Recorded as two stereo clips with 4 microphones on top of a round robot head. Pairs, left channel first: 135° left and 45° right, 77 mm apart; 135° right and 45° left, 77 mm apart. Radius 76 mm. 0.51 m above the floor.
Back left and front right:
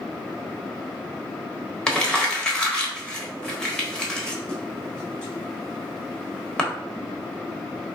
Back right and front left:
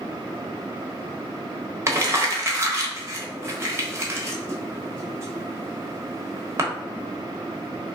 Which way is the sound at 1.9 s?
60° left.